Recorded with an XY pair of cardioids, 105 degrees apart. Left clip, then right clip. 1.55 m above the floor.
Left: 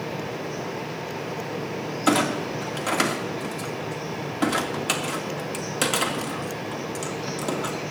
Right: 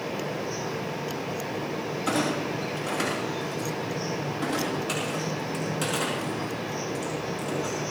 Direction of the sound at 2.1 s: 60° left.